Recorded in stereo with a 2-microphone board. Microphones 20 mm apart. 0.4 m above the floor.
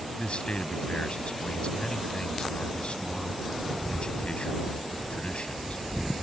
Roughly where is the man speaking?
Left.